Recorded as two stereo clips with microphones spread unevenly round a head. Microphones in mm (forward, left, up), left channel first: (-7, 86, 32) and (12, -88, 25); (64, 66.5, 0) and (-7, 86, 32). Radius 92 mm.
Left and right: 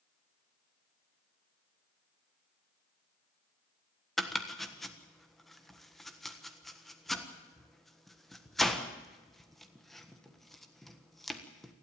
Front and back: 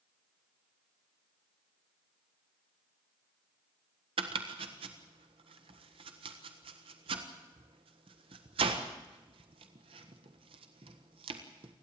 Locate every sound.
4.2 s chopping: 175° right, 1.4 m